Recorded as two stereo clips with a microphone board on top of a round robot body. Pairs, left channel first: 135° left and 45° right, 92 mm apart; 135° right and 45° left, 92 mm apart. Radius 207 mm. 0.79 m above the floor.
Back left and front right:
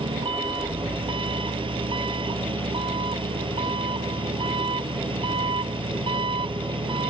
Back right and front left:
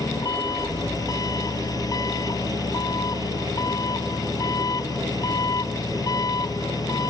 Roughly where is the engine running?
Right.